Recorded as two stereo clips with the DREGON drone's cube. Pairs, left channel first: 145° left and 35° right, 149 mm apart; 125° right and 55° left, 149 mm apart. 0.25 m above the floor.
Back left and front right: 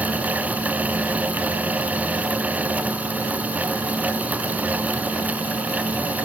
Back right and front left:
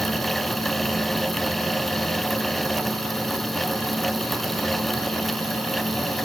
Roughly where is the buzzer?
No buzzer in this recording.